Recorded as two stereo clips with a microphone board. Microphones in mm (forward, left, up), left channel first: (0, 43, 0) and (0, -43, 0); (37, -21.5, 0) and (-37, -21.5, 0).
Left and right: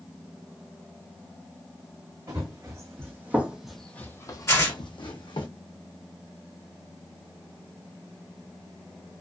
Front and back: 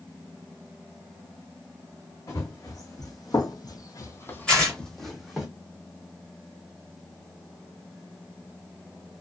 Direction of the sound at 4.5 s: 70° left.